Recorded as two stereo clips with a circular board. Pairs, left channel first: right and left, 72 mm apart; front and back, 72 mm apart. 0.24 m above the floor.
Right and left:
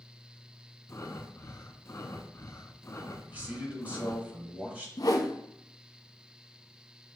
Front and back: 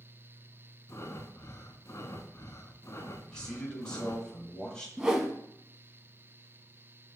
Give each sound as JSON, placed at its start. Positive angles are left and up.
{"t": 0.9, "sound": "breathing", "azimuth_deg": -45, "distance_m": 0.5}
{"t": 3.3, "sound": "a man speaking", "azimuth_deg": 60, "distance_m": 1.1}
{"t": 5.0, "sound": "a whoosh", "azimuth_deg": -100, "distance_m": 0.6}